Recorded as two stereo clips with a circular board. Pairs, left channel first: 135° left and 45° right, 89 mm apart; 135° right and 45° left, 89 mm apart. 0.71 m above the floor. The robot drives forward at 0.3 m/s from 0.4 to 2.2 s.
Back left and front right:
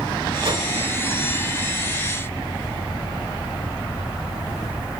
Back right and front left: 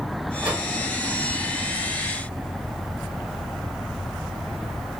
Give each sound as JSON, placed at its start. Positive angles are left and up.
{"t": 0.4, "sound": "a whoosh", "azimuth_deg": -25, "distance_m": 1.3}